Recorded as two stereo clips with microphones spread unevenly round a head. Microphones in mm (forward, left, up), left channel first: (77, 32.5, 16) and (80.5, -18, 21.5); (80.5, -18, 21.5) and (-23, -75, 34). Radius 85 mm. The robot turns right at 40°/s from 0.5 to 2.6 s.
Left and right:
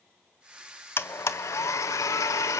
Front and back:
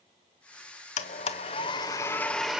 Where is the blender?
55° left, 1.0 m; by 2.6 s 120° left, 1.0 m.